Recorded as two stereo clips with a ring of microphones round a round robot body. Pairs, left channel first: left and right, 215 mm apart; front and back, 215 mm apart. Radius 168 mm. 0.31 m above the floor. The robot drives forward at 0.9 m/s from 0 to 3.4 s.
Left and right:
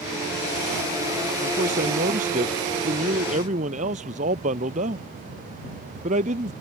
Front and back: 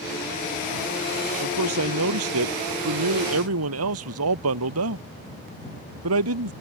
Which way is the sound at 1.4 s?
155° right.